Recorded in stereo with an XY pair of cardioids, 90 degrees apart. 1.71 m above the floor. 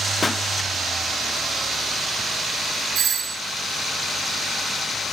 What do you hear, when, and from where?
0.2 s a pop: 30° left, 0.8 m
3.0 s a doorbell: 65° right, 5 m